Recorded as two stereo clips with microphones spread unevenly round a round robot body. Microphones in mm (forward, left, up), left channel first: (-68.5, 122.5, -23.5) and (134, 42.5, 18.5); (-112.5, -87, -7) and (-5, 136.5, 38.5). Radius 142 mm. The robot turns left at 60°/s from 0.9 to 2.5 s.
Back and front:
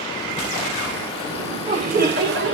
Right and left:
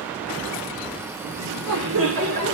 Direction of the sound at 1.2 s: 65° left.